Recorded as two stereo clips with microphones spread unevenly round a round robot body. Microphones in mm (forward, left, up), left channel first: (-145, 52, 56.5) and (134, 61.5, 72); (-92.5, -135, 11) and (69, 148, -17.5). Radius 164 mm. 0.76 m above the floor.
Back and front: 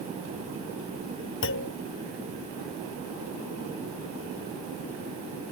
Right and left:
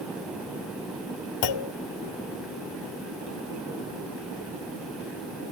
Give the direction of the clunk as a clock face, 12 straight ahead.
4 o'clock.